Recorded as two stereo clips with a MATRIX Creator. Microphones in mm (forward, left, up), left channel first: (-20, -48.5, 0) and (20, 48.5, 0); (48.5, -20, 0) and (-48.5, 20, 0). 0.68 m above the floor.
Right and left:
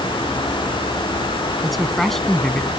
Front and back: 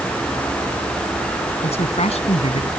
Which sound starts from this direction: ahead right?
A man speaking, at 1.6 s.